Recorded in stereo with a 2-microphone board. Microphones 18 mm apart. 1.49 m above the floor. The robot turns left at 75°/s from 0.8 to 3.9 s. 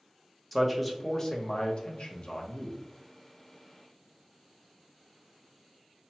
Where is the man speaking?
175° left, 0.7 m; by 2.8 s 30° left, 0.7 m.